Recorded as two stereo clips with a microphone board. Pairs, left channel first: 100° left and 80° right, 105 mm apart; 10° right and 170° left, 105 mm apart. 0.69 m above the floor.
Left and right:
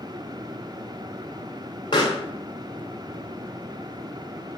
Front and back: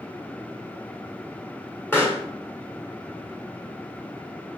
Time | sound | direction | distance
1.9 | a pop | 60° left | 1.9 m